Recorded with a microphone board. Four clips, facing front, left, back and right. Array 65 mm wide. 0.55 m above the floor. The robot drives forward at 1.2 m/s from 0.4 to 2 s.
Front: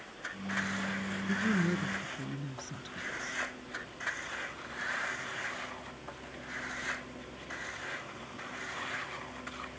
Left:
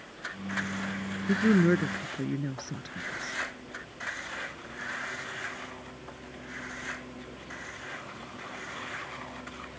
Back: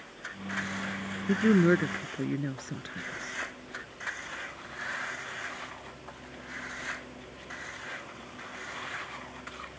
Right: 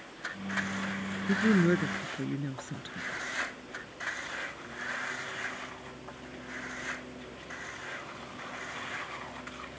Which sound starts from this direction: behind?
A woman speaking, at 1.3 s.